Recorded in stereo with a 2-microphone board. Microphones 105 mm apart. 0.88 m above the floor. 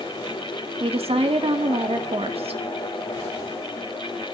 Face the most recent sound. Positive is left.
turn(degrees=-65)  # may be behind; listen again after turning